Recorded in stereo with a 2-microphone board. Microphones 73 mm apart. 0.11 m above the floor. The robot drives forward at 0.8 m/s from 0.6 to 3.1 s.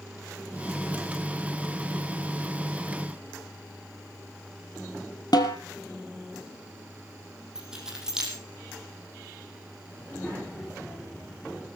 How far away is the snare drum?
About 1.8 m.